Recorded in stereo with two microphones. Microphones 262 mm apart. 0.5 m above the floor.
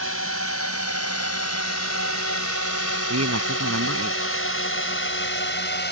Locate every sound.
0.0 s a drone: 60° left (ahead or behind); by 5.9 s 40° left (ahead or behind)
3.1 s a man speaking: 70° right (ahead or behind)